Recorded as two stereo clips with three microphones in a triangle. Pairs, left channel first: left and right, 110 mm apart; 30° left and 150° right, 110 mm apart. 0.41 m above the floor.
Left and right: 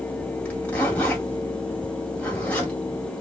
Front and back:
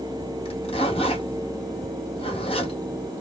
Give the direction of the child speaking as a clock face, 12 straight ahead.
I don't hear a child speaking.